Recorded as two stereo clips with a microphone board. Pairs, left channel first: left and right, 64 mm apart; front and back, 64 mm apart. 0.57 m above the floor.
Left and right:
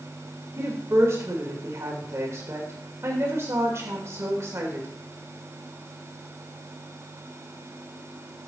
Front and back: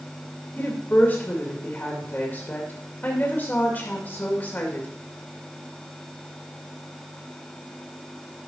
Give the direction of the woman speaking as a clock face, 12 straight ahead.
2 o'clock.